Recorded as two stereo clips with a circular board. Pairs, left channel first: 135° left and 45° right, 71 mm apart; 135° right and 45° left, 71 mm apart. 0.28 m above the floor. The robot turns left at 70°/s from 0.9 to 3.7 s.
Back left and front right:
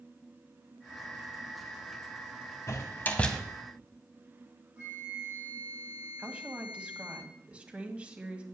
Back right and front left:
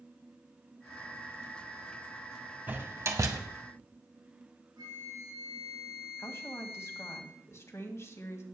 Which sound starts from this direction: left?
A door slam, at 2.7 s.